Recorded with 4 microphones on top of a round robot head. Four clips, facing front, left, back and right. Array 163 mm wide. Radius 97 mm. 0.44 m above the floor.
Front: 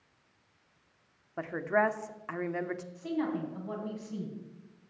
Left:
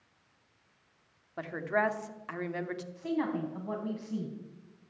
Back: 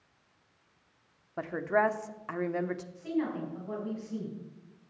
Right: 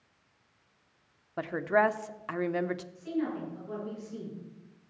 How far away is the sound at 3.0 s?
About 4.5 m.